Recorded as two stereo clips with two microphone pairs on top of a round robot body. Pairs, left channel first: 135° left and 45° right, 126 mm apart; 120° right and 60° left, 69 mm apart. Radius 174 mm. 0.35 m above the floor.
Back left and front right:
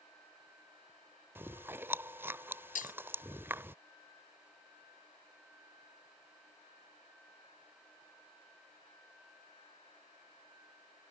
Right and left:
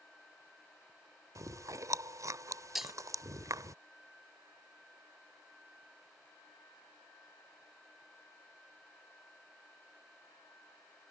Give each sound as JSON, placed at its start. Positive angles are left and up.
{"t": 1.4, "sound": "chewing", "azimuth_deg": 25}
{"t": 2.8, "sound": "breaking glass", "azimuth_deg": 145}